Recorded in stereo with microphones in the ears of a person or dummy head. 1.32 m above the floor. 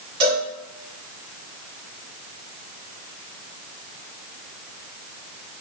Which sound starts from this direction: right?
A cowbell, at 0.2 s.